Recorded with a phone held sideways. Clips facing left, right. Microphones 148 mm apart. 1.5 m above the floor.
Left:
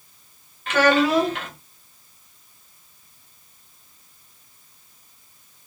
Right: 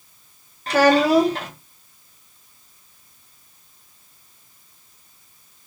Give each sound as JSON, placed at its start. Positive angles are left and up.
{"t": 0.7, "sound": "a child speaking", "side_deg": -35, "distance_m": 0.8}